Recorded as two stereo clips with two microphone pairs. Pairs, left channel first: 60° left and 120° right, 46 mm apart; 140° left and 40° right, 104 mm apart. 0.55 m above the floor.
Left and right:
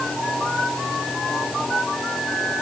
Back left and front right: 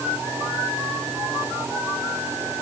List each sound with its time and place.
Only background noise.